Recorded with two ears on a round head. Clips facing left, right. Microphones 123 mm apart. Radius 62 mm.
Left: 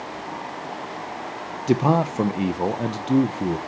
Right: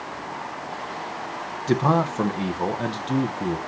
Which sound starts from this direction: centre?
A man speaking, at 1.7 s.